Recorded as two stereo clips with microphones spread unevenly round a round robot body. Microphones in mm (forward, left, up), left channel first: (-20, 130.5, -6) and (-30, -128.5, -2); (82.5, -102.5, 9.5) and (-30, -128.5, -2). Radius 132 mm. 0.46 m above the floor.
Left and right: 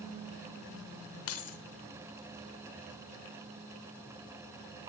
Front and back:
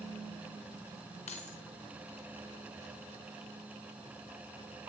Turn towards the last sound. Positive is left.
turn(degrees=55)